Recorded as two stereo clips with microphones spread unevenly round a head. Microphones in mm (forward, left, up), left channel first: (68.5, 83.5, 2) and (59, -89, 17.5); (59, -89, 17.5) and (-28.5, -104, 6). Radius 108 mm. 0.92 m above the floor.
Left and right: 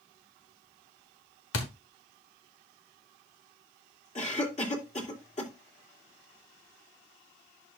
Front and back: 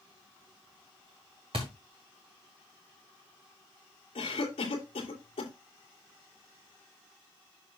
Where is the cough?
40° left, 3 m.